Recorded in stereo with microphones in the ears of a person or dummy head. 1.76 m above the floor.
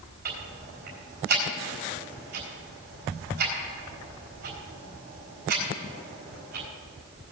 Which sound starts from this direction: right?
Ticking, at 0.2 s.